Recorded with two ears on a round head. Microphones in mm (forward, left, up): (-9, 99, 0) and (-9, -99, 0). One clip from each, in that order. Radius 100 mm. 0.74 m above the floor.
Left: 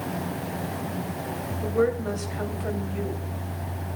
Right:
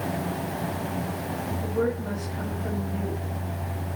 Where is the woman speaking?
65° left (ahead or behind), 4 m.